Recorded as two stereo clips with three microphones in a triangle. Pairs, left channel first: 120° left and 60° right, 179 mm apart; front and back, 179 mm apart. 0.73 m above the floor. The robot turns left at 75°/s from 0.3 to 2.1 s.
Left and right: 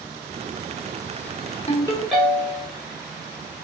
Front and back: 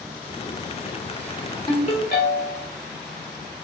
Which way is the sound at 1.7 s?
65° left.